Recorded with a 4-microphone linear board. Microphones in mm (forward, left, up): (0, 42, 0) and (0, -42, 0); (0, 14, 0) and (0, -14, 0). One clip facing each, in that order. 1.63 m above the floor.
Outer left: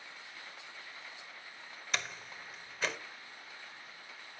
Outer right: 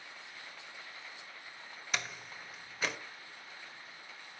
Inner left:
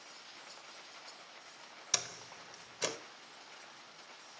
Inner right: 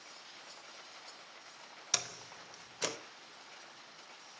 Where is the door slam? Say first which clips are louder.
Even, even; centre (ahead or behind), 1.2 m.